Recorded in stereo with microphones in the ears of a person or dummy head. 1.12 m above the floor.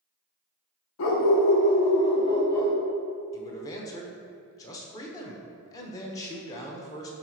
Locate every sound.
1.0 s a dog barking: 65° left (ahead or behind), 1.0 m; by 2.8 s 10° left (ahead or behind), 1.4 m
3.3 s a man speaking: 15° left (ahead or behind), 1.0 m